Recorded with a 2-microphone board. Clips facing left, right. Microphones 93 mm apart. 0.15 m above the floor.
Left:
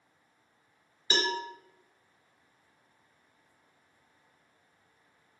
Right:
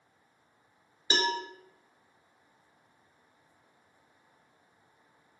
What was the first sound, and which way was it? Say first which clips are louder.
A cowbell: right 1 dB; 30° right (ahead or behind).